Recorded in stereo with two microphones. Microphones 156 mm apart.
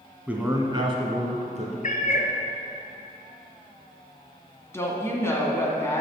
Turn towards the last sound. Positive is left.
turn(degrees=15)  # may be behind; listen again after turning